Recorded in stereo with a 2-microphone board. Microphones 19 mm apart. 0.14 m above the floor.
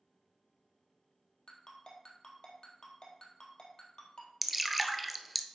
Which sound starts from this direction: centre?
Dripping, at 4.4 s.